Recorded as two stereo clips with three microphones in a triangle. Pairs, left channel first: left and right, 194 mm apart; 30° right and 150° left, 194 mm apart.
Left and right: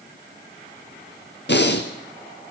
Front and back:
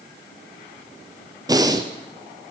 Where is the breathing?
80° left, 1.3 m.